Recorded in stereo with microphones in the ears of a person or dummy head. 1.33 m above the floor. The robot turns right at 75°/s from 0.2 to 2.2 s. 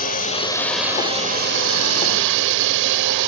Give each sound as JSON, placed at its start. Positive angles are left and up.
{"t": 0.0, "sound": "a drone", "azimuth_deg": 140}